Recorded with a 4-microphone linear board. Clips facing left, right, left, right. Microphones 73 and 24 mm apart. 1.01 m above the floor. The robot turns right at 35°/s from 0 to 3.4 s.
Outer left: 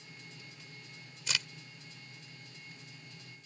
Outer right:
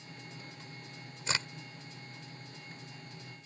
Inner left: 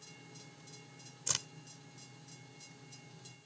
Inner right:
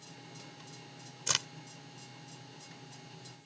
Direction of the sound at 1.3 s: 35° right (ahead or behind).